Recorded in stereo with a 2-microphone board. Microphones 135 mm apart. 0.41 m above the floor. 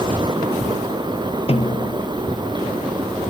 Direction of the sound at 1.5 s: 45° left (ahead or behind).